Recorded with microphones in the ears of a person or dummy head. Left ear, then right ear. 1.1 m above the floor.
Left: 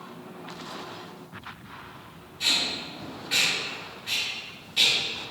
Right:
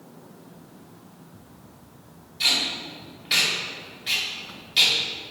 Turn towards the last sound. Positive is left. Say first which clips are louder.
# right 2 dB
turn(degrees=-35)  # may be behind; listen again after turning